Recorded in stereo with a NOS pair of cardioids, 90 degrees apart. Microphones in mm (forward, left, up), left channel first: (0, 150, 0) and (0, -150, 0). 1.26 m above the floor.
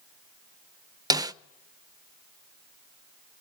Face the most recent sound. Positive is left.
turn(degrees=-15)